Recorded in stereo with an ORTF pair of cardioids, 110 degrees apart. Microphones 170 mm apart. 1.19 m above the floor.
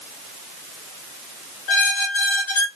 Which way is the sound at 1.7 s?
55° left.